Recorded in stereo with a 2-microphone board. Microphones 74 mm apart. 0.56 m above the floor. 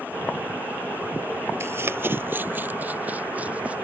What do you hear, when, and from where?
1.6 s running footsteps: 35° right (ahead or behind); by 3.8 s 20° right (ahead or behind)